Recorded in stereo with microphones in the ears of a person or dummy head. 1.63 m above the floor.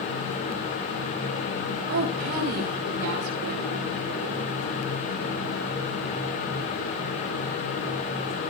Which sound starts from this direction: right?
A woman speaking, at 1.9 s.